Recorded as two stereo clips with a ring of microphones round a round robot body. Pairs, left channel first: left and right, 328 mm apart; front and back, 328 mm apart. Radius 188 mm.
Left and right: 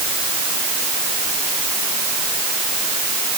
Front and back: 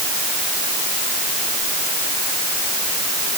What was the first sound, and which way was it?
Only background noise.